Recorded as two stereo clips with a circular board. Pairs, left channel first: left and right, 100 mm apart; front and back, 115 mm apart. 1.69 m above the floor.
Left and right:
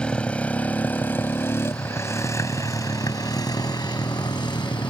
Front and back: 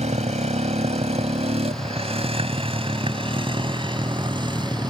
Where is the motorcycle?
170° left; by 4.9 s 130° left.